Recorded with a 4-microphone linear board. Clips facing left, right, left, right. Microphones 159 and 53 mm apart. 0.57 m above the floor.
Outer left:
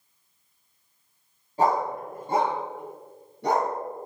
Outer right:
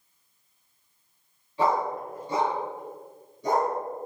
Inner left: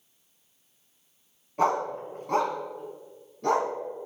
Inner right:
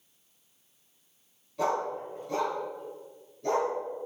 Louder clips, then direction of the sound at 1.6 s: Outer left 1 dB, inner left 4 dB; 45° left (ahead or behind).